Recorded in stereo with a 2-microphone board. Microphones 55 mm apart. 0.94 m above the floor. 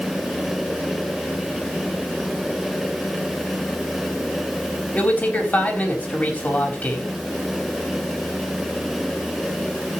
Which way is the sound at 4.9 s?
30° left (ahead or behind).